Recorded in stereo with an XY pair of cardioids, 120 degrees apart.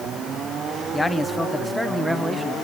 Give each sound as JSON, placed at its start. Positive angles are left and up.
{"t": 0.9, "sound": "a man speaking", "azimuth_deg": 20, "distance_m": 1.2}